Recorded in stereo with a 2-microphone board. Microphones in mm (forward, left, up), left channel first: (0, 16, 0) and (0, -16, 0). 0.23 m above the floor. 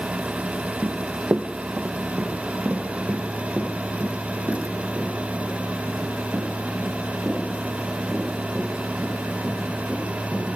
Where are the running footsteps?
70° right (ahead or behind), 0.7 m; by 10.4 s 40° right (ahead or behind), 8 m.